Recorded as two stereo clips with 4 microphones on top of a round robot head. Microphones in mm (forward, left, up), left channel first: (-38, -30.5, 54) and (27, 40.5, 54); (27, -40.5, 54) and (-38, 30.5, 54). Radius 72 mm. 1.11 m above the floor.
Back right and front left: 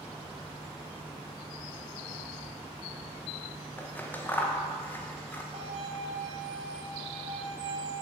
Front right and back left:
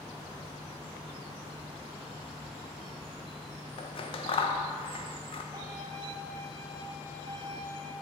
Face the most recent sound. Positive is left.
turn(degrees=75)